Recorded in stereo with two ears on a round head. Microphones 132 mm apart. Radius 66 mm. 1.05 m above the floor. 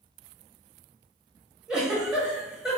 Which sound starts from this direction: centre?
A giggle, at 1.7 s.